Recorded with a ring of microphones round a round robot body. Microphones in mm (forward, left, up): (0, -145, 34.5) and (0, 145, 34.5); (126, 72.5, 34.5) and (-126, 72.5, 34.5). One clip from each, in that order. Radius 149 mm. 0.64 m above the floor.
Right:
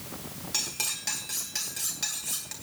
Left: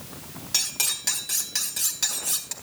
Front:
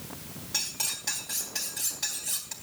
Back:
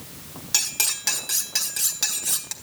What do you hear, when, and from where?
0.5 s cutlery clinking: 160° left, 2.0 m